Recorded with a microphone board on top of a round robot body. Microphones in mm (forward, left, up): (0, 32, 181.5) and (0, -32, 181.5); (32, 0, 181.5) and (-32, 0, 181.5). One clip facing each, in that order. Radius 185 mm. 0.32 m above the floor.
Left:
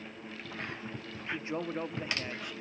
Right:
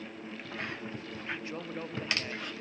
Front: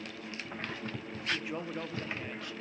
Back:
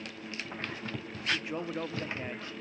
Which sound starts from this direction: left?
A man speaking, at 1.3 s.